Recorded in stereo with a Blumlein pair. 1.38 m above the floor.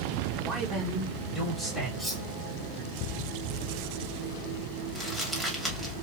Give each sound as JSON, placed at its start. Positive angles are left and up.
{"t": 0.4, "sound": "a man speaking", "azimuth_deg": -10, "distance_m": 1.9}
{"t": 2.0, "sound": "cutlery clinking", "azimuth_deg": 5, "distance_m": 1.7}
{"t": 5.0, "sound": "crumpling", "azimuth_deg": 0, "distance_m": 2.5}